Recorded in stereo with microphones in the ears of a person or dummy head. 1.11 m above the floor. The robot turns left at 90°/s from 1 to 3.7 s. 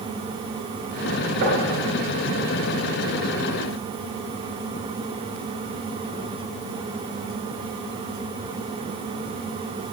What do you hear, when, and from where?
1.4 s knocking: 60° right (ahead or behind), 3 m; by 1.7 s 35° right (ahead or behind), 3 m